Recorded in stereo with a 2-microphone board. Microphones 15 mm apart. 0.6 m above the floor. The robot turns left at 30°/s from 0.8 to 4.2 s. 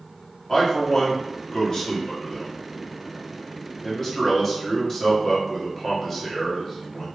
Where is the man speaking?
140° left, 1.4 m; by 7.0 s 40° left, 1.4 m.